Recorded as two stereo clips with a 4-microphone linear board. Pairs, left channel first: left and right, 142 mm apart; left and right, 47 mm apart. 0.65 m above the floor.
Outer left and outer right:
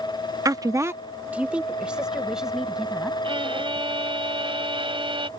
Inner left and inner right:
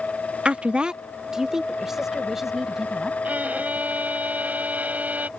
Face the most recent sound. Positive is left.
turn(degrees=-40)  # may be behind; listen again after turning